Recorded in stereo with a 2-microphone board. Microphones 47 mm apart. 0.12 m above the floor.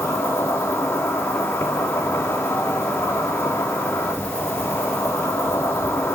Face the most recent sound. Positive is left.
turn(degrees=70)  # may be behind; listen again after turning